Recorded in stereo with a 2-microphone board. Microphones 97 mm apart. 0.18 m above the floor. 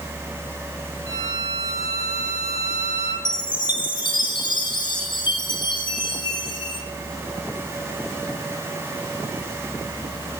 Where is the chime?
50° left (ahead or behind), 0.7 m.